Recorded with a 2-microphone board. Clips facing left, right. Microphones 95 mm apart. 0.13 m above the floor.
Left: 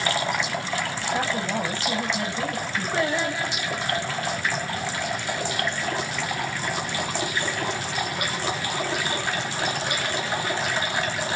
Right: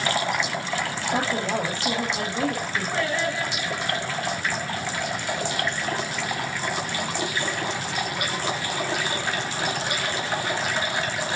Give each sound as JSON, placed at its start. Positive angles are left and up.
{"t": 1.1, "sound": "a woman speaking", "side_deg": -75, "distance_m": 5.5}
{"t": 2.9, "sound": "singing", "side_deg": 15, "distance_m": 3.5}